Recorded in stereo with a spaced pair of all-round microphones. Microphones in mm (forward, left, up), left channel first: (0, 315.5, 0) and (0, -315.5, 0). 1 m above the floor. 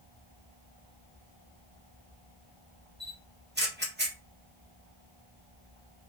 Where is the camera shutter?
15° right (ahead or behind), 1.1 m.